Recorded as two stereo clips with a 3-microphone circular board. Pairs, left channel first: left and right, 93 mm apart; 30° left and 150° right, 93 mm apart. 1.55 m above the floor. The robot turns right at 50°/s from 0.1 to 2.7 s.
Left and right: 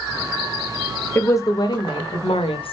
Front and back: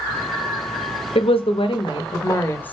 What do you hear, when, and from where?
1.1 s a woman speaking: 25° left, 0.7 m; by 2.7 s 100° left, 0.7 m